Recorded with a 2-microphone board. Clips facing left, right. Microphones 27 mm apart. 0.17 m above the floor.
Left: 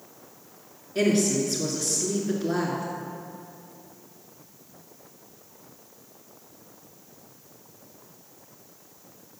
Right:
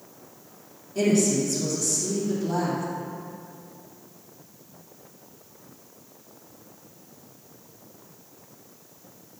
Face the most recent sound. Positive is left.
turn(degrees=50)  # may be behind; listen again after turning